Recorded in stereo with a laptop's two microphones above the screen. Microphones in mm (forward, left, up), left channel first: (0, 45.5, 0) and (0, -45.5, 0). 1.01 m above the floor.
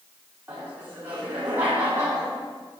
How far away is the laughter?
About 3 m.